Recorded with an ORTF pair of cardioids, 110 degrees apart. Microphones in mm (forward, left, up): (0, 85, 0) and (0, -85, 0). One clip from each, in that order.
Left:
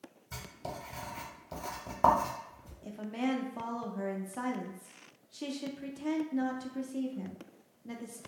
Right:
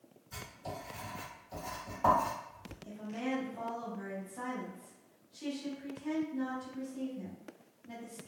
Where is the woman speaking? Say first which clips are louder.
Left 4 dB; 55° left, 0.7 m.